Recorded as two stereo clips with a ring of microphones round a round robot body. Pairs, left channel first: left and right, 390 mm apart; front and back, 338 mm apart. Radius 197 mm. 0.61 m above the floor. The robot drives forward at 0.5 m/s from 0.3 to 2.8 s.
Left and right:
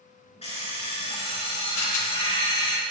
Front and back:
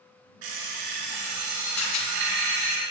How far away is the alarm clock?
About 4 m.